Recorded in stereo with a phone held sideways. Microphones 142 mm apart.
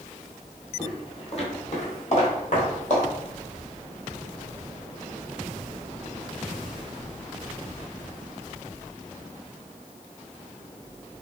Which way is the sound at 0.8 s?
35° left (ahead or behind).